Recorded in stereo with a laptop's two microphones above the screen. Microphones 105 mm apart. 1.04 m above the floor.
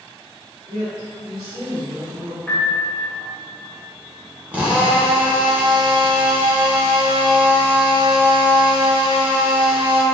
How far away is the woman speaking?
About 1.6 m.